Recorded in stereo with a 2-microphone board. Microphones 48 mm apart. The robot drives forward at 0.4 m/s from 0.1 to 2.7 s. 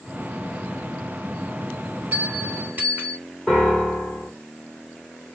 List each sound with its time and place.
2.1 s a bell: 35° right (ahead or behind), 2 m
3.5 s a piano: centre (ahead or behind), 1.2 m